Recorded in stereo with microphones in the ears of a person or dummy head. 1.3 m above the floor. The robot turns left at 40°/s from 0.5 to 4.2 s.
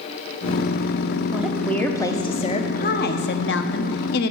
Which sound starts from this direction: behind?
A woman speaking, at 1.3 s.